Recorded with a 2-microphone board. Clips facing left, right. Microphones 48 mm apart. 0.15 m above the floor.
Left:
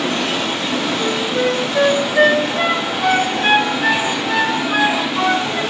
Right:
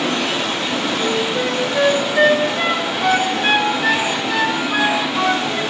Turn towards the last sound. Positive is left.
turn(degrees=10)  # may be behind; listen again after turning